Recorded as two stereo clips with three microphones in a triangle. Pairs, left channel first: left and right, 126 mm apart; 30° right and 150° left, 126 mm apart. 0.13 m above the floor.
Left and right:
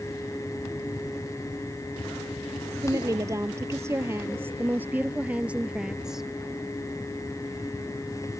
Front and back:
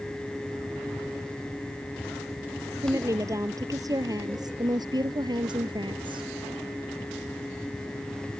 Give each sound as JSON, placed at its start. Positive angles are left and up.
{"t": 2.8, "sound": "a woman speaking", "azimuth_deg": -150}